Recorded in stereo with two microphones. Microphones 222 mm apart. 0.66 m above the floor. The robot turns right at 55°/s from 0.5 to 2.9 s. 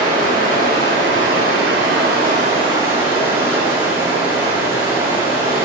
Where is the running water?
140° right, 0.7 m; by 5.7 s 10° right, 0.7 m.